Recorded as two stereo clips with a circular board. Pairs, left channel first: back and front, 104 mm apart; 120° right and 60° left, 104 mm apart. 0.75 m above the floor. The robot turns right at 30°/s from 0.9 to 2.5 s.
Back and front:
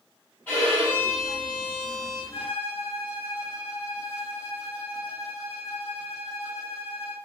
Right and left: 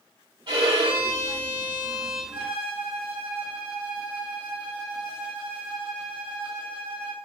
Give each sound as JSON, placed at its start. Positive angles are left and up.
{"t": 0.5, "sound": "a violin", "azimuth_deg": 110, "distance_m": 3.0}
{"t": 2.3, "sound": "a violin", "azimuth_deg": 130, "distance_m": 1.7}